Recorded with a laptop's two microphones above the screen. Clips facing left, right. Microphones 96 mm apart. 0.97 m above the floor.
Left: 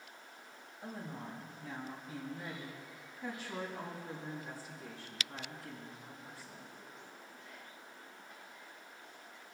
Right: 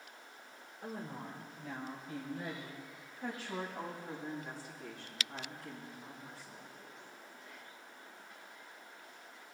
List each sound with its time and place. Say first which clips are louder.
0.8 s a woman speaking: right 1 dB; 45° right (ahead or behind), 3 m; by 6.7 s 55° right (ahead or behind), 7.5 m